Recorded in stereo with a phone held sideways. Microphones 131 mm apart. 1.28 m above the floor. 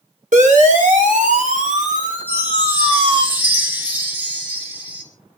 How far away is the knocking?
I don't hear knocking.